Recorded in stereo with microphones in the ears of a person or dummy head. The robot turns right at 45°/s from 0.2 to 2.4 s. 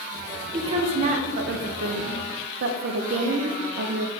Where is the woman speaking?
150° right, 0.5 m; by 4.1 s 65° right, 0.5 m.